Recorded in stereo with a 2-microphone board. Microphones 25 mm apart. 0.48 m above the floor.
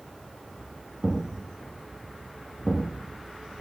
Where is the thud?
15° left (ahead or behind), 5.5 m.